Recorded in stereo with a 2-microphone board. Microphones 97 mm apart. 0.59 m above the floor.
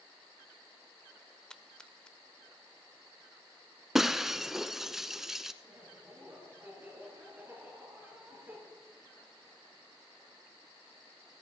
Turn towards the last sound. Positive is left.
turn(degrees=-25)  # may be behind; listen again after turning